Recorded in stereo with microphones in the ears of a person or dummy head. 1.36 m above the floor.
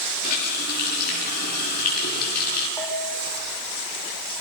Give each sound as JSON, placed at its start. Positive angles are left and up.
{"t": 0.2, "sound": "a running tap", "side_deg": 50, "distance_m": 6.5}
{"t": 2.8, "sound": "a bell", "side_deg": 15, "distance_m": 7.0}